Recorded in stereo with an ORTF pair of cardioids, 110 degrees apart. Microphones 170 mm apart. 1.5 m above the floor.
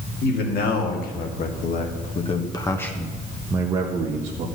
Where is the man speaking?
70° left, 3 m; by 4.5 s 45° right, 1.9 m.